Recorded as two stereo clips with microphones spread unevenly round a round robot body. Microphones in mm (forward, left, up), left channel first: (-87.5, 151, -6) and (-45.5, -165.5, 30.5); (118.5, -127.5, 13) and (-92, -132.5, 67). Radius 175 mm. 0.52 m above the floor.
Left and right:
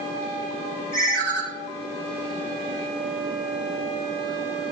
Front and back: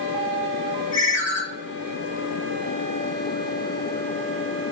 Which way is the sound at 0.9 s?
20° left.